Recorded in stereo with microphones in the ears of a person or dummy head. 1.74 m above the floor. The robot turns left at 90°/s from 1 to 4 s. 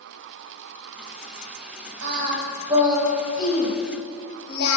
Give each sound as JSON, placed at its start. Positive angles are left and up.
{"t": 2.0, "sound": "singing", "side_deg": -80, "distance_m": 2.0}